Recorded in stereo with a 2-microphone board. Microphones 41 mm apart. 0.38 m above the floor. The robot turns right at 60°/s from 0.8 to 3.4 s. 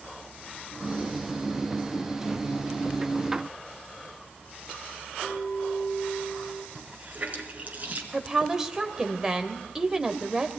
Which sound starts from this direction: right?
A running tap, at 6.8 s.